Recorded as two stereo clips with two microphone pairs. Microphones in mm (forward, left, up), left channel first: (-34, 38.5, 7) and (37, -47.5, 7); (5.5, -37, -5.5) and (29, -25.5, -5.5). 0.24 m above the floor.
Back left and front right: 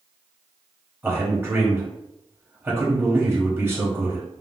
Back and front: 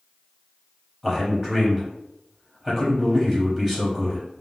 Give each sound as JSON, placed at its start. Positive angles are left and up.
{"t": 1.0, "sound": "a man speaking", "azimuth_deg": -35, "distance_m": 1.0}